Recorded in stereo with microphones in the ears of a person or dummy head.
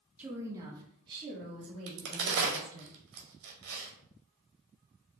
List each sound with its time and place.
0.2 s a woman speaking: 10° right (ahead or behind), 0.6 m; by 2.9 s 35° right (ahead or behind), 2.5 m
1.9 s a crack: 70° right (ahead or behind), 1.2 m